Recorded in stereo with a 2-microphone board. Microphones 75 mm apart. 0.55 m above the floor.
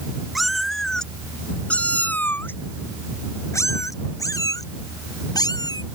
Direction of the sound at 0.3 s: Centre (ahead or behind).